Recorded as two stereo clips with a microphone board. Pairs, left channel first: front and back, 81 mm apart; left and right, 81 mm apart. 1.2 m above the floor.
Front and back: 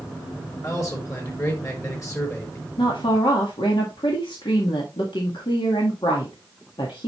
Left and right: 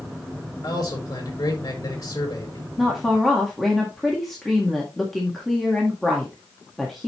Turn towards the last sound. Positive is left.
turn(degrees=0)